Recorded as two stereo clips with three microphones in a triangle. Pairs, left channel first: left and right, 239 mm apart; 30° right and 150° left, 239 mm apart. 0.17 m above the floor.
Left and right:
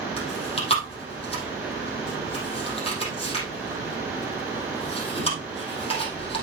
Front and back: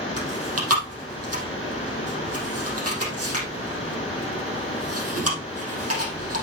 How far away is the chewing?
About 3.5 m.